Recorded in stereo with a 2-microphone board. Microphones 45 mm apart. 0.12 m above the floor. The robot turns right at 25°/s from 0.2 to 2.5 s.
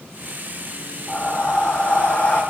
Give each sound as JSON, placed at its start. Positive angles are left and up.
{"t": 1.1, "sound": "breathing", "azimuth_deg": 5, "distance_m": 4.0}